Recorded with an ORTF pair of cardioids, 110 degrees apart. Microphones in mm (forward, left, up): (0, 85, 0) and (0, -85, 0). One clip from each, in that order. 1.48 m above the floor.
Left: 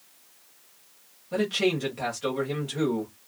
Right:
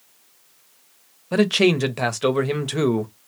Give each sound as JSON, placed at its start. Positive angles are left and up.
{"t": 1.3, "sound": "a man speaking", "azimuth_deg": -65, "distance_m": 0.8}